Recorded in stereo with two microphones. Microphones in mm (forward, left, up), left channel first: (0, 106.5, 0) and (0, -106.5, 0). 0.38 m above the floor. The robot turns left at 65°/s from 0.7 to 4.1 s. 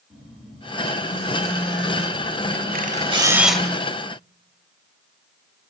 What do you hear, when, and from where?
0.1 s a phone buzzing: 175° right, 3.5 m; by 3.7 s 15° right, 3.5 m
2.7 s a camera shutter: 130° right, 0.7 m; by 3.6 s 175° left, 0.7 m